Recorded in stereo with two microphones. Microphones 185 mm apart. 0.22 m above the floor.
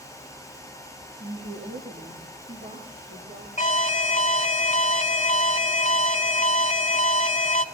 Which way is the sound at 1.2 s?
70° right (ahead or behind).